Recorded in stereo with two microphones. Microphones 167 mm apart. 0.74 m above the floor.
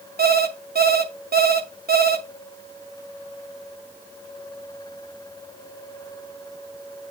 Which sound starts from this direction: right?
An alarm clock, at 0.2 s.